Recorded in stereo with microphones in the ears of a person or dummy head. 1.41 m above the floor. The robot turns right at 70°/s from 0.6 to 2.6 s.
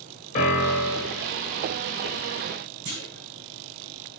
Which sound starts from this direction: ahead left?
A piano, at 0.3 s.